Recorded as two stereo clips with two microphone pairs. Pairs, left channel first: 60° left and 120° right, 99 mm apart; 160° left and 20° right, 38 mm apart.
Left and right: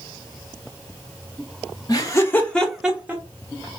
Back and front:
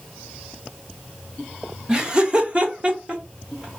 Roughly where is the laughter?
Ahead left.